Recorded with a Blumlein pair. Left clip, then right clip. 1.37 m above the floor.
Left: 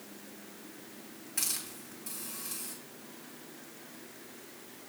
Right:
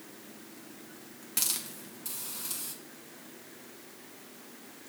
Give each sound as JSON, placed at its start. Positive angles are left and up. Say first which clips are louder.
{"t": 1.4, "sound": "a hiss", "louder": "right 3 dB", "azimuth_deg": -45, "distance_m": 1.4}